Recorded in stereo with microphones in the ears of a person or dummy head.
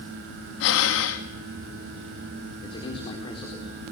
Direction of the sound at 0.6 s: 70° left (ahead or behind).